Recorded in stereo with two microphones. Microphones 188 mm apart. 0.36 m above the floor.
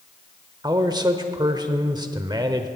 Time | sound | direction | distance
0.6 | a man speaking | 20° right (ahead or behind) | 0.9 m